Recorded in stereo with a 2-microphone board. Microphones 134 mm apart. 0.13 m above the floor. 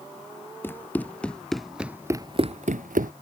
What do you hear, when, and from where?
0.6 s running footsteps: 15° left (ahead or behind); by 3.1 s 80° right